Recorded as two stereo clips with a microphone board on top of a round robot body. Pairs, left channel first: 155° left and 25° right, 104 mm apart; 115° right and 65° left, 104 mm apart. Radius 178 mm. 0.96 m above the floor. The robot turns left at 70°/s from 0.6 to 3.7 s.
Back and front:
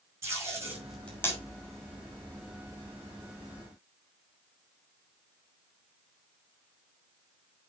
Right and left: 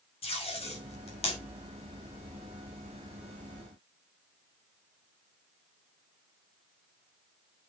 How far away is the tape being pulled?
About 6 m.